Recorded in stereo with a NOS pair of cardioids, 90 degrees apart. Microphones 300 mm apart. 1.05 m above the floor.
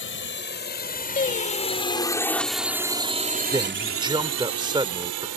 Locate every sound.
0.0 s a drone: 40° left; by 5.4 s 70° right
1.2 s singing: 30° left
3.5 s a man speaking: 15° right